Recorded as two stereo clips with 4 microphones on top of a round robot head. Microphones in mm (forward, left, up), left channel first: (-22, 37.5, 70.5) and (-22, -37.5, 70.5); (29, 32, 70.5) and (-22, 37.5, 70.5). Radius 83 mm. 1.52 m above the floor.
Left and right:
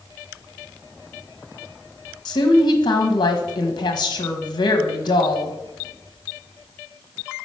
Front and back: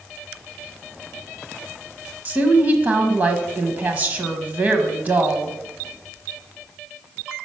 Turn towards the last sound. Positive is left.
turn(degrees=120)